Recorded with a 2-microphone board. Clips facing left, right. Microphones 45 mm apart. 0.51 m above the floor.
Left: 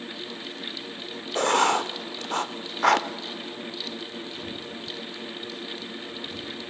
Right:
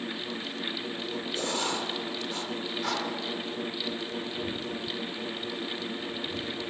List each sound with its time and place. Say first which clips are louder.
1.4 s writing: left 11 dB; 60° left (ahead or behind), 0.7 m